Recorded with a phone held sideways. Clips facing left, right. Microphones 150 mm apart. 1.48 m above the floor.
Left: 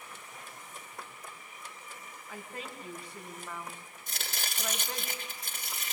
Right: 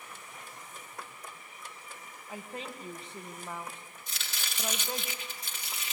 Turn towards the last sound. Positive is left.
turn(degrees=50)  # may be behind; listen again after turning